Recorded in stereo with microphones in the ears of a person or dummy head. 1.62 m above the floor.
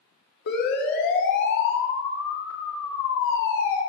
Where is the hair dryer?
No hair dryer in this recording.